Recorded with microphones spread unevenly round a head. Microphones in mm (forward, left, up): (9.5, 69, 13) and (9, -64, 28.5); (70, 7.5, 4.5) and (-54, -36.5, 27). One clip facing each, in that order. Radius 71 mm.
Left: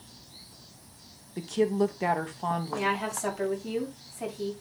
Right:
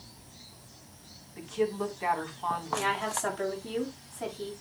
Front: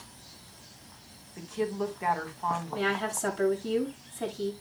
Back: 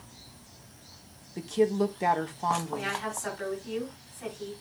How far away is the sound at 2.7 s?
About 7.5 m.